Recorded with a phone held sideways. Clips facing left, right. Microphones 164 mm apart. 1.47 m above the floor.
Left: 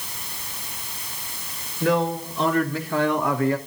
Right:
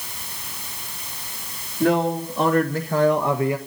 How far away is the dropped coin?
No dropped coin in this recording.